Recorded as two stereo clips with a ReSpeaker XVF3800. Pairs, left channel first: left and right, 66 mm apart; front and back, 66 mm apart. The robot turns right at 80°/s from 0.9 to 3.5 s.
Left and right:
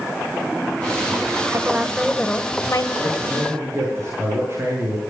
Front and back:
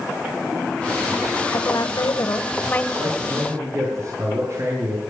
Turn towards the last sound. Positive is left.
turn(degrees=-140)